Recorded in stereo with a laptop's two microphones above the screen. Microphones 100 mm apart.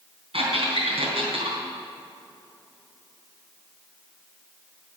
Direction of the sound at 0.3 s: 80° right.